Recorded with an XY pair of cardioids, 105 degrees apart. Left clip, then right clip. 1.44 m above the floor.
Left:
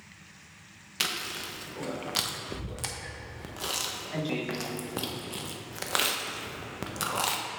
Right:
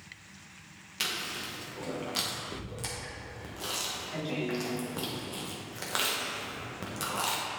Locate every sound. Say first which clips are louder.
1.0 s chewing: left 2 dB; 35° left, 1.0 m